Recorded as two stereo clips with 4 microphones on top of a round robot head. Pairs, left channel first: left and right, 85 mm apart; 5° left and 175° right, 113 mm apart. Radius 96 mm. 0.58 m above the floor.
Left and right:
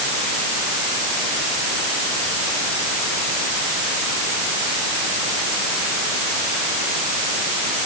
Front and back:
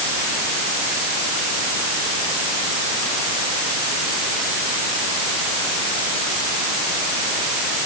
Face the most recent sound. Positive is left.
No sound to turn to.